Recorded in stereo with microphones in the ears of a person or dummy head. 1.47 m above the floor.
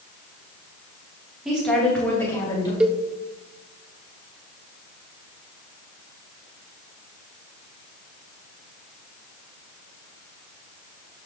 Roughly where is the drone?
I don't hear a drone.